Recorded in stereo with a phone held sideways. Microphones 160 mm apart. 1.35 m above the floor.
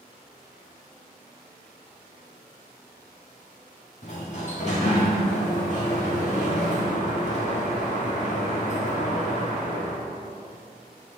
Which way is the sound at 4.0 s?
45° left (ahead or behind).